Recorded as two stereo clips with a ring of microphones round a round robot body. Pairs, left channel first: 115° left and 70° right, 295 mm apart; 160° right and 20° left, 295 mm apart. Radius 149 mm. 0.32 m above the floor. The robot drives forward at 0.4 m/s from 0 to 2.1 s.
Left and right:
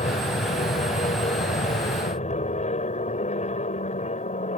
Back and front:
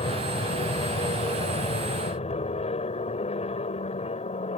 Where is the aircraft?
155° left.